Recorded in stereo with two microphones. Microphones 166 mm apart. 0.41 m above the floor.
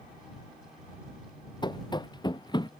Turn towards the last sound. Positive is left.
turn(degrees=25)  # may be behind; listen again after turning